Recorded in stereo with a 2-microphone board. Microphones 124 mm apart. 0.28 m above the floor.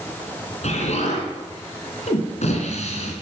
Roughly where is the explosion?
Left.